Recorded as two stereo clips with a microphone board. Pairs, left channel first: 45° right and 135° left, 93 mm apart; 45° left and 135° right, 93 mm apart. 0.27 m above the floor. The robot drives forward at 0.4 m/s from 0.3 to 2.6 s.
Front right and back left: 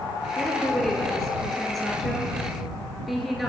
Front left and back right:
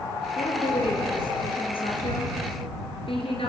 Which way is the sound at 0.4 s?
40° left.